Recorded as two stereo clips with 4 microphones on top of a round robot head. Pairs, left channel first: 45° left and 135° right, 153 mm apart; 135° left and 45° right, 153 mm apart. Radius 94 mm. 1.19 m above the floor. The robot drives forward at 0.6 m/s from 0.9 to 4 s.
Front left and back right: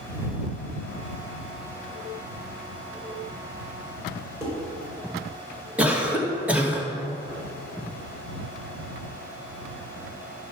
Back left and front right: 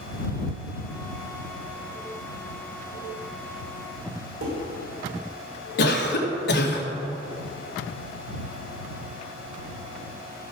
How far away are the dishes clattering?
About 4 m.